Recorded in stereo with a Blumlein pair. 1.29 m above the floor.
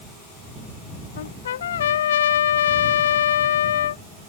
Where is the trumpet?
60° left.